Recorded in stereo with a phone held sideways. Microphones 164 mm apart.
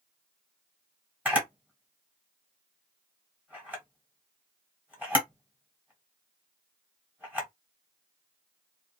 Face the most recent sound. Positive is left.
turn(degrees=-10)  # may be behind; listen again after turning